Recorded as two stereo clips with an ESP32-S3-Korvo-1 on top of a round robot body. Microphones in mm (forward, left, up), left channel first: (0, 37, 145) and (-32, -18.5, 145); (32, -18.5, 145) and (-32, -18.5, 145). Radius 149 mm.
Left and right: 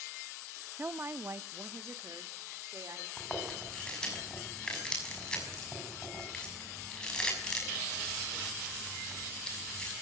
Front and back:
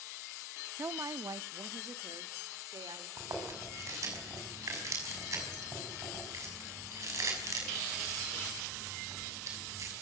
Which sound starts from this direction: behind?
A woman speaking, at 0.8 s.